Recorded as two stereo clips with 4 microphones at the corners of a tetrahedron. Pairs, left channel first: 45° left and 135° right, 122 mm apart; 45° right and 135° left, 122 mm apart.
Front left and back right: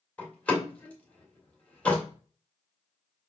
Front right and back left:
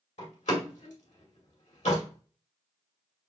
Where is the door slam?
30° right, 2 m.